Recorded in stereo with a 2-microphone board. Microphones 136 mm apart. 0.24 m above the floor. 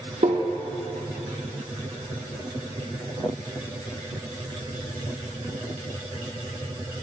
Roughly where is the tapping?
Right.